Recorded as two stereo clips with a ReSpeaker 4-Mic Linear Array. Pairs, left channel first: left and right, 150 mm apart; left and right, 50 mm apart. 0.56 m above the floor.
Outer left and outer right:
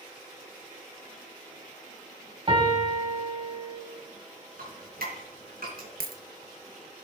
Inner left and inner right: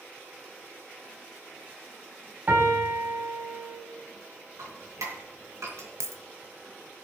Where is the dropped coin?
80° right, 1.1 m.